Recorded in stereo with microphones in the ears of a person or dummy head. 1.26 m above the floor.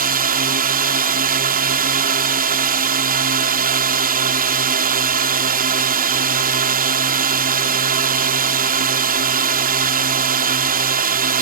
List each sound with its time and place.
0.0 s a drone: 40° right (ahead or behind)